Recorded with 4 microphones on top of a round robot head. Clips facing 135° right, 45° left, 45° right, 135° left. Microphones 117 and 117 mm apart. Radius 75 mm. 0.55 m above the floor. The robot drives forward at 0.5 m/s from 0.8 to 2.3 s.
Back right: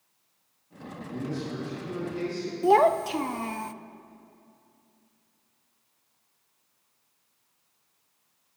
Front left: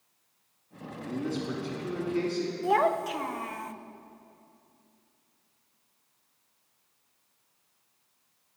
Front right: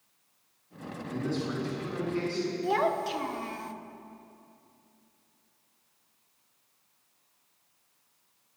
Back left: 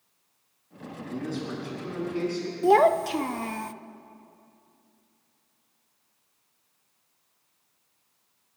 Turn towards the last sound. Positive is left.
turn(degrees=165)